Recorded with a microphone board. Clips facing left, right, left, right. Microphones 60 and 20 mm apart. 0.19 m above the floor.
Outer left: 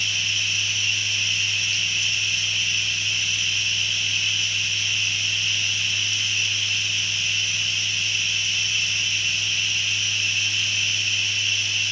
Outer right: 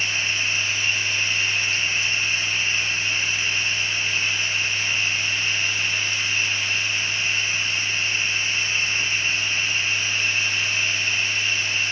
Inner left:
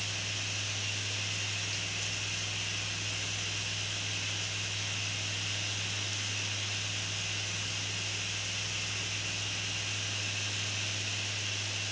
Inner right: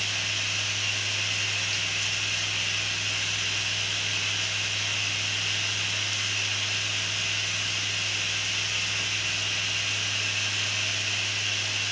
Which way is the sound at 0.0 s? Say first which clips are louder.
Outer right 2 dB, inner right 8 dB; 35° right (ahead or behind).